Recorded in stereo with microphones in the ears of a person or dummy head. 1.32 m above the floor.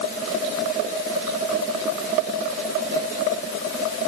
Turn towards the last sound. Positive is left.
No sound to turn to.